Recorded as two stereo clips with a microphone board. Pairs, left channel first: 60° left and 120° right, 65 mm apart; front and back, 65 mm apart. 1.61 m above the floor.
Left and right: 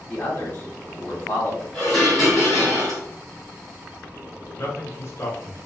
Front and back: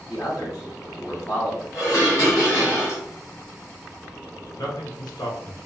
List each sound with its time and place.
0.1 s a man speaking: 20° left, 1.3 m
1.7 s dishes clattering: 30° right, 1.4 m
4.6 s a man speaking: 10° left, 0.9 m